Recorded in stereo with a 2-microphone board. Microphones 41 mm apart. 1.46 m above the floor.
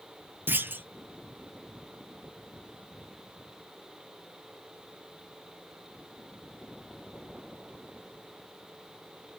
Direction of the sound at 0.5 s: 50° right (ahead or behind).